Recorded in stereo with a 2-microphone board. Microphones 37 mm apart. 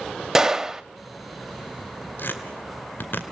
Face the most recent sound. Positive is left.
turn(degrees=70)  # may be behind; listen again after turning